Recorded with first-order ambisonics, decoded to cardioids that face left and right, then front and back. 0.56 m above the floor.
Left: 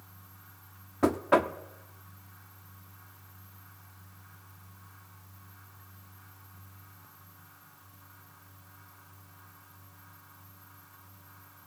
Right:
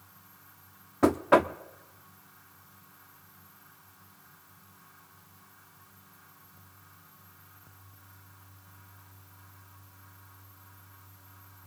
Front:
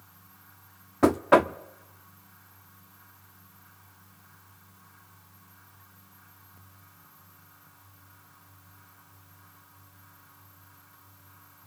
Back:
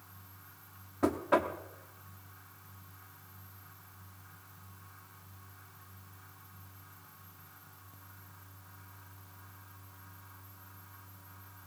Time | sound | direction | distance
1.0 | knocking | 15° right | 0.7 m